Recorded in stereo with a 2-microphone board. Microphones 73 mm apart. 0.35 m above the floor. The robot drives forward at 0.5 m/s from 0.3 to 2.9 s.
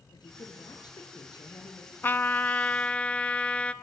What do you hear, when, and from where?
0.1 s a woman speaking: 80° left, 6.5 m; by 1.9 s 75° left (ahead or behind), 6.5 m
2.0 s a trumpet: 30° left (ahead or behind), 0.5 m; by 3.7 s 15° left (ahead or behind), 0.9 m